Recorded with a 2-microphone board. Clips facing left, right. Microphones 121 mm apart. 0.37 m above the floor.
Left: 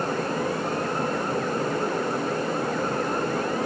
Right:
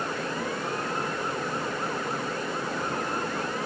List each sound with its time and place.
Only background noise.